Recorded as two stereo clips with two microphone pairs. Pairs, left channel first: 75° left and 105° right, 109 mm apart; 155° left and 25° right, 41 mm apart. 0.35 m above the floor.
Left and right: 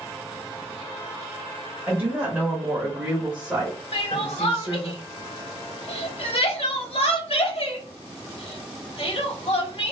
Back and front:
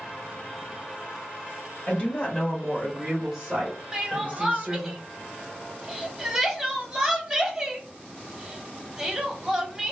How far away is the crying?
About 0.7 m.